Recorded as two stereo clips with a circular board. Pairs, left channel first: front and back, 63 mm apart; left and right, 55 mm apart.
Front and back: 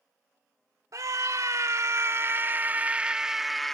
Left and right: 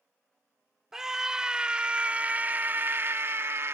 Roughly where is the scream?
Behind.